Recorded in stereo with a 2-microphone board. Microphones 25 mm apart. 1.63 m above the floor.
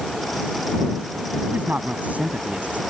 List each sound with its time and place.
1.5 s a man speaking: 75° right (ahead or behind); by 2.8 s 65° right (ahead or behind)